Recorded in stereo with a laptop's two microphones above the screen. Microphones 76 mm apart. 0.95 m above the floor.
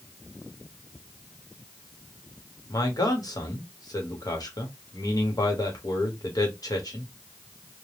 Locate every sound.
2.7 s a man speaking: 55° left (ahead or behind), 1.0 m